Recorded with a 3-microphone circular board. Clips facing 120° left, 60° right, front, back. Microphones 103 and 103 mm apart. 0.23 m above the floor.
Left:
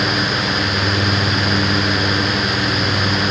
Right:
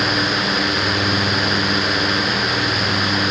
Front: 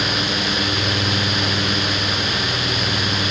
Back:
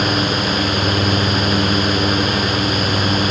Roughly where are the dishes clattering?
I don't hear dishes clattering.